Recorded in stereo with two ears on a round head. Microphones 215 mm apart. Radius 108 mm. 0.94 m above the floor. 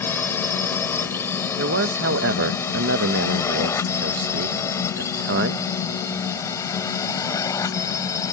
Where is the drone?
10° left (ahead or behind); by 8.3 s 15° left (ahead or behind).